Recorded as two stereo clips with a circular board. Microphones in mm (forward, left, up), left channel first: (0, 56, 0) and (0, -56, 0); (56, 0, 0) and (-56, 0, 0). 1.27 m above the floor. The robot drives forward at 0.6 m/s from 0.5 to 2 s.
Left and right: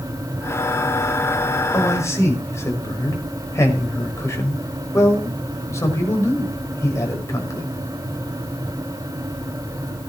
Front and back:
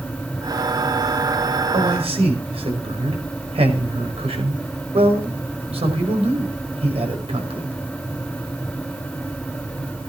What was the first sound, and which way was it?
A man speaking, 155° left.